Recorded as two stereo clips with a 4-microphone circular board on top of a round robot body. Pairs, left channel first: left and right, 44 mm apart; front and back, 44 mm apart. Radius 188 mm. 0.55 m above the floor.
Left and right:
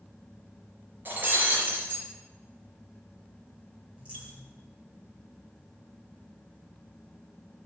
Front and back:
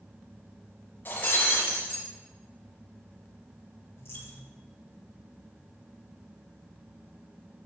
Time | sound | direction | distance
1.1 | breaking glass | 45° right | 4 m
4.0 | a dropped coin | 30° right | 5.5 m